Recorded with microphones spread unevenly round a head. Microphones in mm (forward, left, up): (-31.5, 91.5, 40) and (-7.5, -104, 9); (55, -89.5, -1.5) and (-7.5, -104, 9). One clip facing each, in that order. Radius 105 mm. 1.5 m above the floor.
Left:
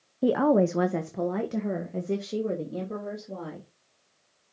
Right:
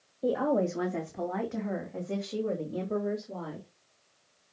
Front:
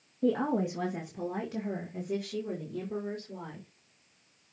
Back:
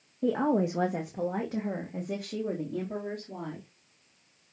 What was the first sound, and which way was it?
A woman speaking, 105° left.